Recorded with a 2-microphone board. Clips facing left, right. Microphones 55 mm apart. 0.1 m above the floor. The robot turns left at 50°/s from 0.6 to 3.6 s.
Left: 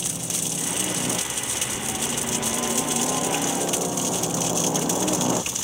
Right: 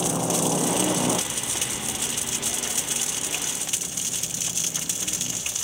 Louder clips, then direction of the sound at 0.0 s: Right 9 dB; 40° right (ahead or behind).